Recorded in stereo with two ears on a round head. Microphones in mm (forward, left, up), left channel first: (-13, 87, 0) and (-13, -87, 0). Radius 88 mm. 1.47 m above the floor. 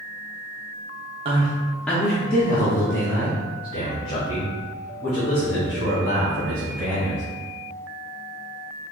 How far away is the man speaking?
About 0.5 m.